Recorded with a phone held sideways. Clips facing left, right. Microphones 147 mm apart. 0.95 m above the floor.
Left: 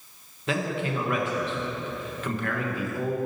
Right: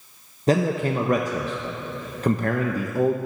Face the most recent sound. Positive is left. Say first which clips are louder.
# right 7 dB
turn(degrees=-40)  # may be behind; listen again after turning